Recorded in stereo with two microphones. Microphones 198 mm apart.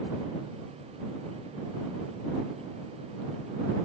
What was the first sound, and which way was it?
Only background noise.